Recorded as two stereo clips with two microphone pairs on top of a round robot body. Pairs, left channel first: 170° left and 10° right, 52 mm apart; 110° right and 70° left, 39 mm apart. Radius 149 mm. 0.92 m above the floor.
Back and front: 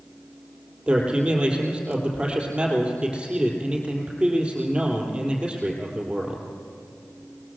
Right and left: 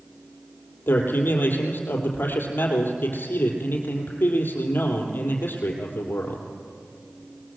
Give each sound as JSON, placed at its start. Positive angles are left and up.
{"t": 0.9, "sound": "a man speaking", "azimuth_deg": -80, "distance_m": 3.5}